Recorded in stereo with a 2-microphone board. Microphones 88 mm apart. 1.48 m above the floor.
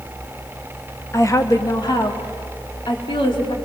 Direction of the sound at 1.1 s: 30° left (ahead or behind).